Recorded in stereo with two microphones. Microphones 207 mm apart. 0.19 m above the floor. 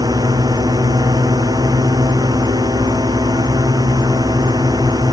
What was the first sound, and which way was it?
A drone, 20° right (ahead or behind).